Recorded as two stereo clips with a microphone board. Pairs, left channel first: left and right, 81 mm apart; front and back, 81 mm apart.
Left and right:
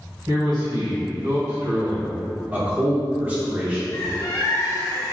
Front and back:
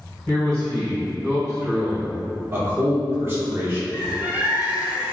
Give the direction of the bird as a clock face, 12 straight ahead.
8 o'clock.